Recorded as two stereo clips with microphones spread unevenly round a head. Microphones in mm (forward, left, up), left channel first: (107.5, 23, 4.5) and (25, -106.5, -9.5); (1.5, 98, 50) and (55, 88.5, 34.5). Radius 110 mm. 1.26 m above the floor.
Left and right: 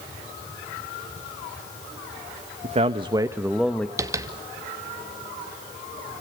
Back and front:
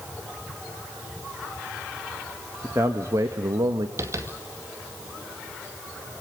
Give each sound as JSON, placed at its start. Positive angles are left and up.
{"t": 2.6, "sound": "a man speaking", "azimuth_deg": -80, "distance_m": 1.4}
{"t": 4.0, "sound": "tapping", "azimuth_deg": -55, "distance_m": 2.0}